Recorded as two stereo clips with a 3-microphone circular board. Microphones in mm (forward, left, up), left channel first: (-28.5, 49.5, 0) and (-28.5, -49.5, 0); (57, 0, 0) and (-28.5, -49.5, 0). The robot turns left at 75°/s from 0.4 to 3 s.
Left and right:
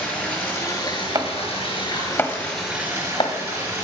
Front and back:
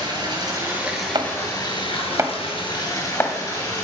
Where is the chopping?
125° right, 1.5 m; by 3.9 s 95° left, 1.5 m.